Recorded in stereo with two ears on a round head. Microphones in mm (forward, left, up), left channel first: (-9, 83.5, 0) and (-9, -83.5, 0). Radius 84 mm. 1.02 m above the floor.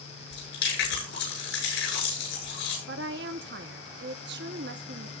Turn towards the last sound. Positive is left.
turn(degrees=-60)  # may be behind; listen again after turning